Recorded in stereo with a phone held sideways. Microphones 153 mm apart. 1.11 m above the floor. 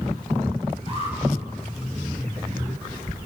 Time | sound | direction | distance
0.9 | an alarm | 45° right (ahead or behind) | 8 m